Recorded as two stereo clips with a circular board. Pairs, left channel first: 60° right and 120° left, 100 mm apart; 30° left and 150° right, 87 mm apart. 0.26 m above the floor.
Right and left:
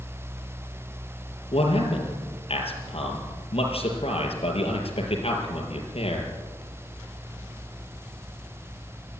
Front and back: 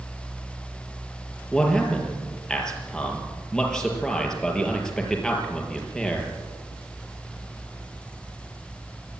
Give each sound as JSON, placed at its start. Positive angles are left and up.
{"t": 1.5, "sound": "a man speaking", "azimuth_deg": -55, "distance_m": 5.0}